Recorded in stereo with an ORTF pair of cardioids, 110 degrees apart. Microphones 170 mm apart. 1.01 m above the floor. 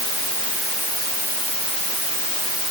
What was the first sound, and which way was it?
Only background noise.